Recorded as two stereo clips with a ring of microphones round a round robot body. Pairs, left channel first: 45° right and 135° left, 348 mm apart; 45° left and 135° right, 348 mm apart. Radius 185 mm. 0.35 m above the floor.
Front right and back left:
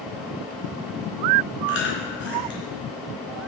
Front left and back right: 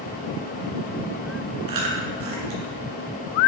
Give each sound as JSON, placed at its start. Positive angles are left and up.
{"t": 1.7, "sound": "chewing", "azimuth_deg": -105, "distance_m": 3.0}